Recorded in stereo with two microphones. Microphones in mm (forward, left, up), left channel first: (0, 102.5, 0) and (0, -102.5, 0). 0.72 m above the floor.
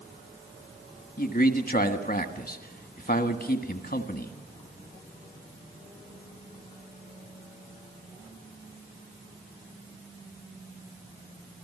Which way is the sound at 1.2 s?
45° left (ahead or behind).